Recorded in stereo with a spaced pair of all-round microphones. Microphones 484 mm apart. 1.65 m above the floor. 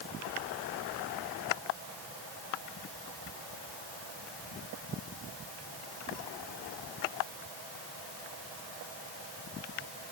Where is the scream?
No scream in this recording.